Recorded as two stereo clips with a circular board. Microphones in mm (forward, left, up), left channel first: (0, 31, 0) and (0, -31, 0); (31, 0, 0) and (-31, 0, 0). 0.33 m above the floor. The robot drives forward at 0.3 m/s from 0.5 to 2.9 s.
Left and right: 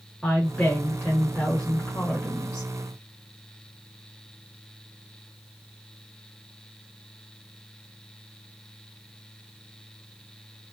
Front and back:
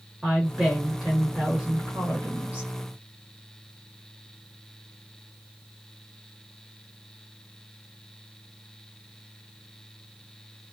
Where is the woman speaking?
95° left, 1.2 m; by 2.7 s 150° left, 1.4 m.